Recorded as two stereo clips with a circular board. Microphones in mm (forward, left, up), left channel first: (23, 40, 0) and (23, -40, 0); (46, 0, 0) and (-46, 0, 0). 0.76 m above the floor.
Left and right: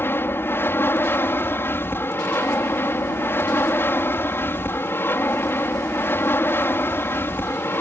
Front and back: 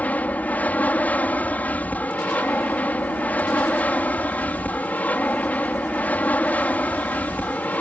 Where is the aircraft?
60° left.